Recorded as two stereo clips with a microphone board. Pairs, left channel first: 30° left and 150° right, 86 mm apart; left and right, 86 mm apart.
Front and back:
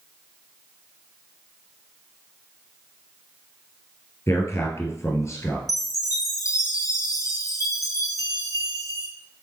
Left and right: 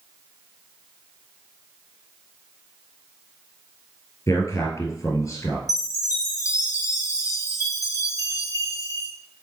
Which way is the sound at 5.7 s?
55° left.